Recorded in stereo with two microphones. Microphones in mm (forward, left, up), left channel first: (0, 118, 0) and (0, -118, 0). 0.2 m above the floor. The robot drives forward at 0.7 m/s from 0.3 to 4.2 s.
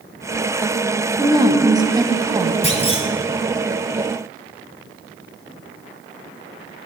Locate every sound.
1.2 s a woman speaking: 15° right (ahead or behind), 1.0 m
2.6 s a clunk: 25° left (ahead or behind), 2 m